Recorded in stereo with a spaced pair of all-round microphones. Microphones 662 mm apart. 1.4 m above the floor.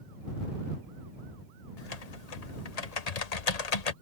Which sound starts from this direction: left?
Typing on a keyboard, at 1.8 s.